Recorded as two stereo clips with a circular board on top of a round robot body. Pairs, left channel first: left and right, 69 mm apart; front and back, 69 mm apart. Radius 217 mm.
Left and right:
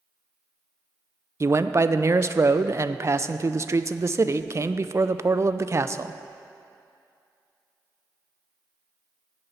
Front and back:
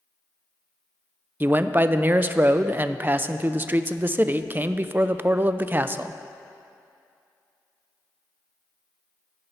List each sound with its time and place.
1.4 s a man speaking: 125° right, 0.6 m